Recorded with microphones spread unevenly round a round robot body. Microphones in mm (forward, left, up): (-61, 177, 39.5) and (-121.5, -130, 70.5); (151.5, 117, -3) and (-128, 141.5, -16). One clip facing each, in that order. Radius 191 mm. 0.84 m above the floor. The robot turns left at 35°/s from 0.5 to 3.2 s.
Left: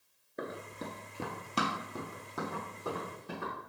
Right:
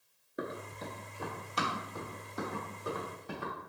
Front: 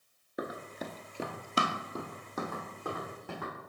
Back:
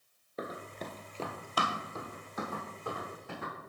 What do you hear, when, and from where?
0.4 s running footsteps: 50° right, 0.8 m; by 3.5 s 5° left, 4 m